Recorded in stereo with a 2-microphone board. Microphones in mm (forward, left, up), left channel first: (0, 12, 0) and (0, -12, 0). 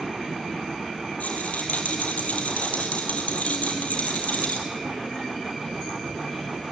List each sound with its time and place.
1.2 s a rattle: 85° left, 5 m